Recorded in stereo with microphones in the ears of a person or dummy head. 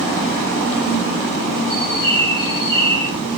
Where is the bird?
25° left (ahead or behind), 8 m.